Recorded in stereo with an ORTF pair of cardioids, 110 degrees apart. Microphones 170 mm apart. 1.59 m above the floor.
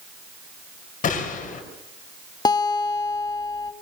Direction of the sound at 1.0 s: 45° left.